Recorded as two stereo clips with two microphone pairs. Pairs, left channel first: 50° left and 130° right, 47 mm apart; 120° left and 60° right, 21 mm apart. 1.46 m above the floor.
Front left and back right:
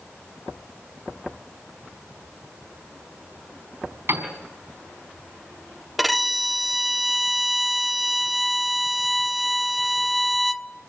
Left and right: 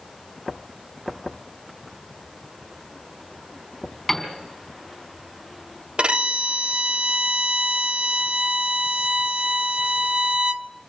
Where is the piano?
165° right, 4.5 m.